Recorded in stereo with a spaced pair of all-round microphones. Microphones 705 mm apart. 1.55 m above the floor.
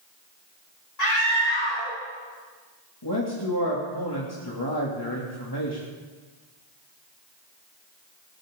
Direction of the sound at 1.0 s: 70° left (ahead or behind).